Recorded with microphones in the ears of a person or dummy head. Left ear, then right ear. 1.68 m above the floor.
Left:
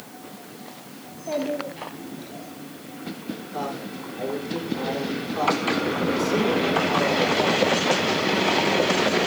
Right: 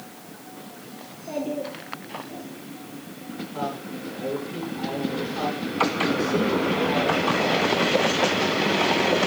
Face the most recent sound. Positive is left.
turn(degrees=25)  # may be behind; listen again after turning